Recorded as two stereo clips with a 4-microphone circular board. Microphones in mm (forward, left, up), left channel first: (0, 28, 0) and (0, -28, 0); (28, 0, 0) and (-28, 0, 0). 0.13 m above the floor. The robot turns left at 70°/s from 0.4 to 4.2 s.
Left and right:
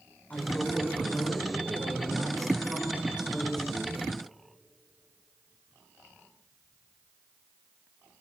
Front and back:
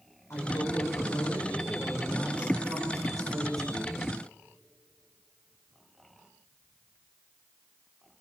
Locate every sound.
0.3 s a woman speaking: 30° left, 7 m; by 4.0 s 145° left, 7 m